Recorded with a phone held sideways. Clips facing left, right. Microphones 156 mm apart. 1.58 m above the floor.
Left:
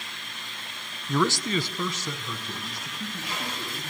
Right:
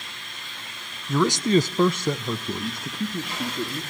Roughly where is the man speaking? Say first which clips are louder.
Right 5 dB; centre.